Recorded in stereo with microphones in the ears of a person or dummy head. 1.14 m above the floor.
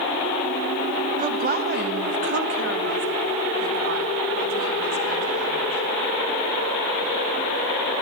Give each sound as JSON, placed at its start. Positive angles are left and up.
{"t": 1.2, "sound": "a woman speaking", "side_deg": -35, "distance_m": 1.0}